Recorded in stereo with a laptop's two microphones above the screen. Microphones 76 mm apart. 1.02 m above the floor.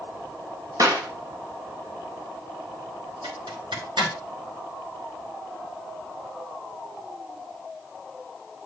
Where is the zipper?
85° right, 2.5 m.